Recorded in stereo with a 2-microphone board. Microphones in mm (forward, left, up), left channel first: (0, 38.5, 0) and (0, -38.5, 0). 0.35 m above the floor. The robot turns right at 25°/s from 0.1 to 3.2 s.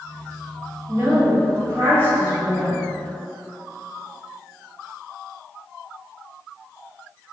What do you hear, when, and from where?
0.9 s a woman speaking: 75° right, 1.9 m; by 2.8 s 25° right, 1.9 m